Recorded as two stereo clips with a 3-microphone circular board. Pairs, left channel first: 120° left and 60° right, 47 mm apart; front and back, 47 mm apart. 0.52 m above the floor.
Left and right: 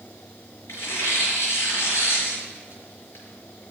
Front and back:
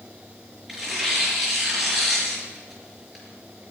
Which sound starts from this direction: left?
Tearing paper, at 0.7 s.